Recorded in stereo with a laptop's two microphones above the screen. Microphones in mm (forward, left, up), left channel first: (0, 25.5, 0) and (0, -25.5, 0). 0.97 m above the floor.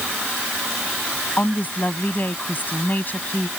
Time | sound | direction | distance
1.4 | a woman speaking | 40° left (ahead or behind) | ?